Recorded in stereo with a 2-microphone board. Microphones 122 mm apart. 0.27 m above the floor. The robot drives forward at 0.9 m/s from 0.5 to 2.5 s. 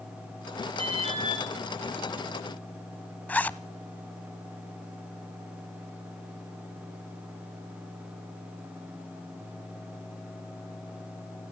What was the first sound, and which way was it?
An alarm, 45° right (ahead or behind).